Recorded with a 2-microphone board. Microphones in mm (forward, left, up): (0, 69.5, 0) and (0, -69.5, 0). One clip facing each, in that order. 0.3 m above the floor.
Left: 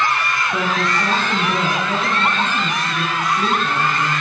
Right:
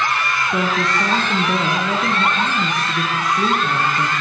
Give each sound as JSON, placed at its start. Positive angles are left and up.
{"t": 0.5, "sound": "a woman speaking", "side_deg": -20, "distance_m": 5.5}